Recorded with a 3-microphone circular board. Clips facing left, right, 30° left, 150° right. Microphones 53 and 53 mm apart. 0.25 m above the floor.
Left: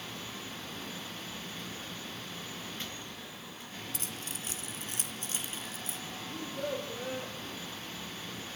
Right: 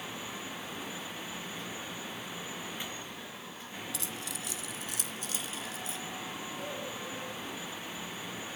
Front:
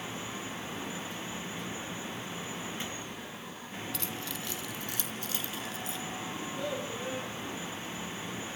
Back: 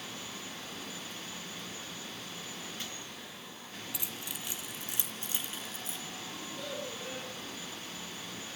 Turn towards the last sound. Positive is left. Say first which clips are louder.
# left 3 dB, front 5 dB
turn(degrees=100)